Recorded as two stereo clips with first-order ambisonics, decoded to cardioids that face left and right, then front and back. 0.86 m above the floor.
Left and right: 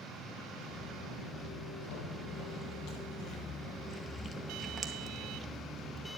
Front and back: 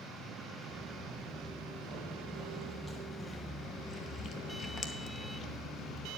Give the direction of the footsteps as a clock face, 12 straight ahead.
9 o'clock.